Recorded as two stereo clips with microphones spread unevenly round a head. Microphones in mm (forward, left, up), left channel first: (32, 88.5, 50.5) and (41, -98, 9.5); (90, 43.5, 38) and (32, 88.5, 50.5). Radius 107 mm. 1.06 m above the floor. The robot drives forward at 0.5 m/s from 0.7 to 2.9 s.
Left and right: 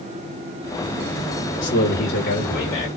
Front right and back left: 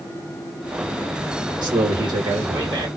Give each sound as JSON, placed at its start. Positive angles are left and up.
{"t": 1.6, "sound": "a man speaking", "azimuth_deg": 125, "distance_m": 1.0}